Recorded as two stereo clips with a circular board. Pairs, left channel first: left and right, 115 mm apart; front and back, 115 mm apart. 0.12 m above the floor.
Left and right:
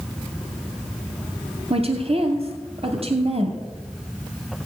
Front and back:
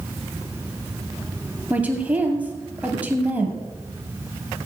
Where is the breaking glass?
I don't hear breaking glass.